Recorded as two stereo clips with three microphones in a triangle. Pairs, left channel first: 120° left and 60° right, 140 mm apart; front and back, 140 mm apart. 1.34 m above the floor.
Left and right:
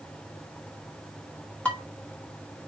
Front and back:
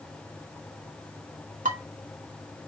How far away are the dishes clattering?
About 2 m.